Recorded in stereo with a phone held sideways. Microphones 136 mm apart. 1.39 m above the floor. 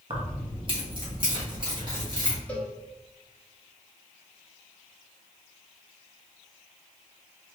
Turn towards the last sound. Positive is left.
turn(degrees=10)  # may be behind; listen again after turning